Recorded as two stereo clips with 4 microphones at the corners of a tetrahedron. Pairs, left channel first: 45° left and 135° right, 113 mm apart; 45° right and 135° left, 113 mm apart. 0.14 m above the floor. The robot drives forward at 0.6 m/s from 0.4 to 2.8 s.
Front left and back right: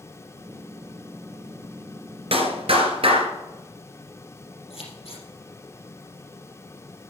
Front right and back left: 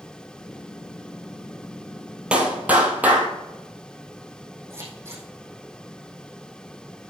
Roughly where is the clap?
Behind right.